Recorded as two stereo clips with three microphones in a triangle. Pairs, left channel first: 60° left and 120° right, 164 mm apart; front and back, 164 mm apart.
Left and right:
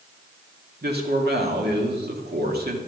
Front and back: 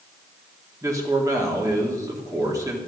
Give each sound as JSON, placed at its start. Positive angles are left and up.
{"t": 0.8, "sound": "a man speaking", "azimuth_deg": -110, "distance_m": 2.0}